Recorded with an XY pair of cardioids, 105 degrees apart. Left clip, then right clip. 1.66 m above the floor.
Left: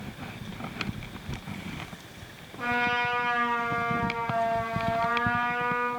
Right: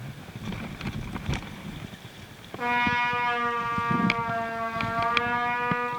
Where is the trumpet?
60° right, 1.2 m.